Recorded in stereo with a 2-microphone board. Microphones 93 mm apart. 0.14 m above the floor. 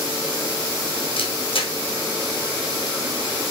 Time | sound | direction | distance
1.2 | a camera shutter | 75° left (ahead or behind) | 3.5 m